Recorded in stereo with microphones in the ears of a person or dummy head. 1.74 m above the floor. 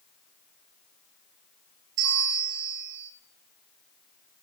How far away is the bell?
About 1.1 m.